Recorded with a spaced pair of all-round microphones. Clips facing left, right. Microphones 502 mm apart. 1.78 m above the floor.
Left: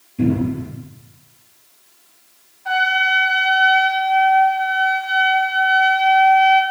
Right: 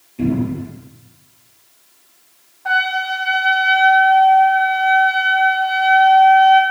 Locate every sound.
0.2 s a cupboard door: 30° left (ahead or behind), 3 m
2.6 s a trumpet: 85° right, 0.8 m